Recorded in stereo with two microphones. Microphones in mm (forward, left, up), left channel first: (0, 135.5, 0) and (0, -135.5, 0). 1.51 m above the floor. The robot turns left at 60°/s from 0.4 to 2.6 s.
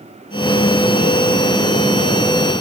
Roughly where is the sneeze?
I don't hear a sneeze.